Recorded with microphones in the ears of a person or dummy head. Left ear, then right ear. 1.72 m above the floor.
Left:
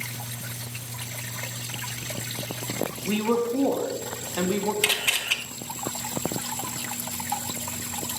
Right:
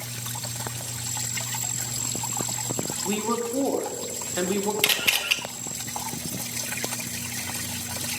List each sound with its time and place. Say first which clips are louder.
3.0 s a woman speaking: left 3 dB; 5° left (ahead or behind), 1.3 m
4.8 s a camera shutter: right 2 dB; 5° right (ahead or behind), 1.1 m